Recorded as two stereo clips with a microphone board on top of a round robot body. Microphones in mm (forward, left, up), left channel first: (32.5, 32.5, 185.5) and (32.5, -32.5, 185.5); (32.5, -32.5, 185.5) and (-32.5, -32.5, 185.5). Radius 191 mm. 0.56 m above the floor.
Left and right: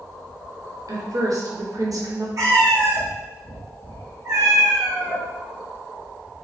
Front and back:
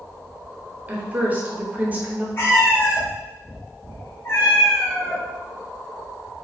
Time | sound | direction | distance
0.9 | a woman speaking | 115° right | 1.2 m
2.4 | a cat meowing | 55° right | 1.2 m